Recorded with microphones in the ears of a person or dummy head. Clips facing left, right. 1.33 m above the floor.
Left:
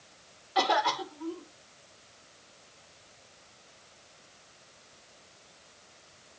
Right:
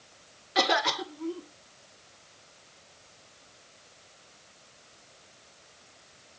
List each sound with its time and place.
0.6 s a cough: 25° right (ahead or behind), 2.0 m